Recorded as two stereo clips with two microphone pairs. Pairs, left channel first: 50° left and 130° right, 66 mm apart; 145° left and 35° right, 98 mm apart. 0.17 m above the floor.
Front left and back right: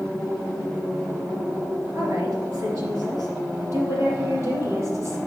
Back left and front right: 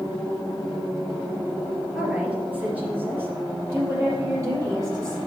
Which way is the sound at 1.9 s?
120° right.